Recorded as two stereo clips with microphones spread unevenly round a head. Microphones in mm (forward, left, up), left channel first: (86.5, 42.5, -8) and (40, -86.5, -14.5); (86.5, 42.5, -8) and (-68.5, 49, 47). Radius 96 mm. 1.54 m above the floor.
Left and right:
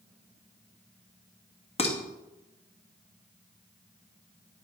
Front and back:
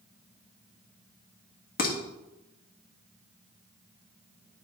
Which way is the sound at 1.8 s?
30° left.